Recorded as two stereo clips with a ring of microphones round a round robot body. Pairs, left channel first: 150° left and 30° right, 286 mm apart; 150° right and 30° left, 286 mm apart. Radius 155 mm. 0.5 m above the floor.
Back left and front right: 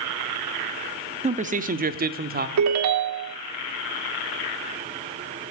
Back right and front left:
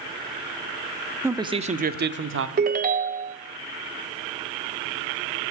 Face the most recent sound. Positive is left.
turn(degrees=-25)